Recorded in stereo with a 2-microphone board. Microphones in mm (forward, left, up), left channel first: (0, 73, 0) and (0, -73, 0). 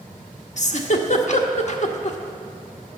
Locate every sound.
0.6 s a giggle: 55° left (ahead or behind), 0.8 m